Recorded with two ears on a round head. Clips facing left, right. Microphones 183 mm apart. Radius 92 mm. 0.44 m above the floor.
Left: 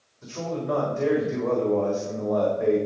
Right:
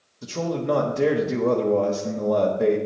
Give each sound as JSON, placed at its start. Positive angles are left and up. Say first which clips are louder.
{"t": 0.2, "sound": "a man speaking", "louder": "right 4 dB", "side_deg": -45, "distance_m": 1.2}